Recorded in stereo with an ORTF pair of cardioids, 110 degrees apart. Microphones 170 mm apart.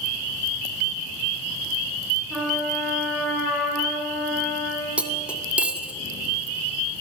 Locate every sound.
2.3 s a trumpet: straight ahead, 10 m
5.0 s cutlery clinking: 5° right, 1.9 m